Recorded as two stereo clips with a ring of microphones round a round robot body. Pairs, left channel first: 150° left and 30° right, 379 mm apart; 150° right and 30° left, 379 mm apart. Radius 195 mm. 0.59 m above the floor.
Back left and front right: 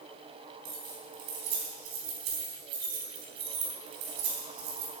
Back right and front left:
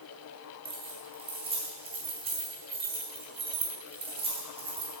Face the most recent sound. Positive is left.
turn(degrees=-45)